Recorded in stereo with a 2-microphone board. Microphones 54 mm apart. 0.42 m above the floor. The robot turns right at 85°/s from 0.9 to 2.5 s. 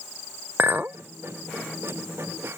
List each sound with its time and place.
0.6 s a clink: 40° right (ahead or behind); by 1.0 s 45° right (ahead or behind)